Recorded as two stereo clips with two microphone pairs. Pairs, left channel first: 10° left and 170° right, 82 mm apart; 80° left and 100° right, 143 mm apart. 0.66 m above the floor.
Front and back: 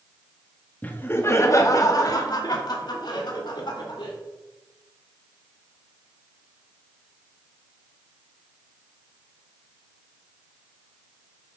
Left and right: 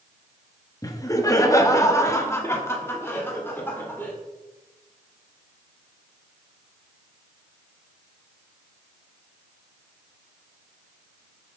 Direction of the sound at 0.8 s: 50° left.